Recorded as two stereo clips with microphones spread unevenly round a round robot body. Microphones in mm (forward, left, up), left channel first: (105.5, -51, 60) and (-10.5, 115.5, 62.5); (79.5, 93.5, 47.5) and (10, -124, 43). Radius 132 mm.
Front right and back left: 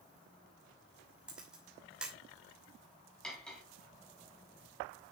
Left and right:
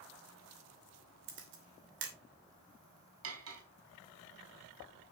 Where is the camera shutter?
150° right, 2.5 m.